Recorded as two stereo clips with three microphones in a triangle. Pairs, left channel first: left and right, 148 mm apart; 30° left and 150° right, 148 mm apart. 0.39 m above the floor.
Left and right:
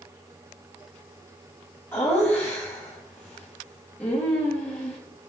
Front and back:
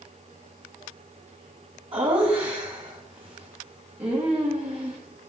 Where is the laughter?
165° left, 3 m.